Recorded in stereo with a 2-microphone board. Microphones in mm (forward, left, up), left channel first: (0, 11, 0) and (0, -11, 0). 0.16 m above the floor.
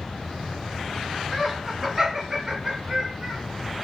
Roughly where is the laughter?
Centre.